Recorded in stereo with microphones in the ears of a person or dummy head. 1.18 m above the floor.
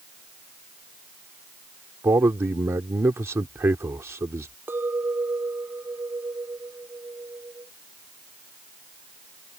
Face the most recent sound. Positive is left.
turn(degrees=-10)  # may be behind; listen again after turning